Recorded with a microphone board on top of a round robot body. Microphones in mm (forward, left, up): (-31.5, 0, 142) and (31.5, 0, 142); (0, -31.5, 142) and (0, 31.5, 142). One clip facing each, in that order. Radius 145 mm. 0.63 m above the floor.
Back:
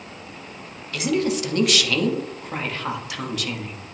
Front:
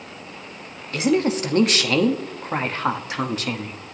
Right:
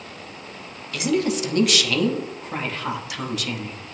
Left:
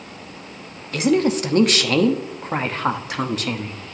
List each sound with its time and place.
0.9 s a woman speaking: 50° left, 1.1 m